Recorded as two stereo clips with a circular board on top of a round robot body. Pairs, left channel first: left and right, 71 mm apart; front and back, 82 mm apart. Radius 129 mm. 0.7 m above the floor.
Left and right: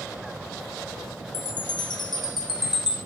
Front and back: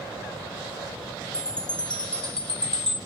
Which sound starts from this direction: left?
A chime, at 1.3 s.